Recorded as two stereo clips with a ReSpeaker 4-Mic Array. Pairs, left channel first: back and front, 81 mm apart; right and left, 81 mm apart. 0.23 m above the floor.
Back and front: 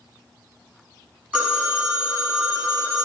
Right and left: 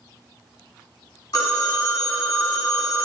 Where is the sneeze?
No sneeze in this recording.